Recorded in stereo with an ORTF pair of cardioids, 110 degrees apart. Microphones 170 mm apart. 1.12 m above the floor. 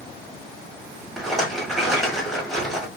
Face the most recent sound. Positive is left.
turn(degrees=0)